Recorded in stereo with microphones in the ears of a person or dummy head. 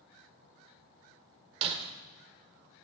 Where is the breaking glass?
35° right (ahead or behind), 1.5 m.